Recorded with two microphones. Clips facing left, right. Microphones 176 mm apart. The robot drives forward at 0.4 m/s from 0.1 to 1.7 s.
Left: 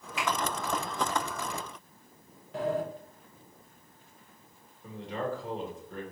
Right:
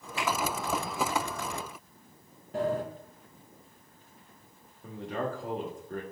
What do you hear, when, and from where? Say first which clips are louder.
0.2 s a finger snap: even; 35° right (ahead or behind), 2.5 m
2.5 s a sliding door: right 1 dB; 45° right (ahead or behind), 1.2 m
4.8 s a man speaking: right 1 dB; 50° right (ahead or behind), 1.6 m